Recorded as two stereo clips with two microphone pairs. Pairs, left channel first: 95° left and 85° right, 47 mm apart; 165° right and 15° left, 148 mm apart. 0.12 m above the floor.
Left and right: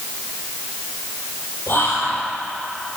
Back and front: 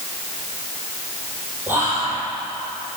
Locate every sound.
1.7 s whispering: 90° left, 4 m